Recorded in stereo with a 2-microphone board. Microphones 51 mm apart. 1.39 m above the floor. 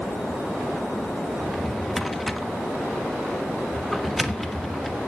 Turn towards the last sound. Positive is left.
turn(degrees=5)  # may be behind; listen again after turning